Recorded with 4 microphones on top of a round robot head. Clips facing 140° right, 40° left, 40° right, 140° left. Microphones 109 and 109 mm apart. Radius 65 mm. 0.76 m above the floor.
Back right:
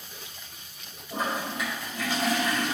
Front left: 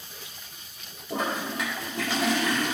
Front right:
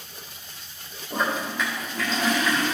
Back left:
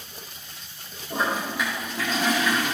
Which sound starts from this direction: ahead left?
A toilet flushing, at 1.1 s.